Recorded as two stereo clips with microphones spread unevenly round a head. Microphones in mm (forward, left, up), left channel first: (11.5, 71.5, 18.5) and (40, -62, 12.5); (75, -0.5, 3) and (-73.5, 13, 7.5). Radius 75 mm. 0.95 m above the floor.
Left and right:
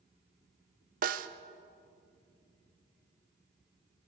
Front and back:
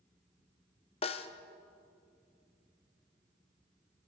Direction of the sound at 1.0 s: 60° right.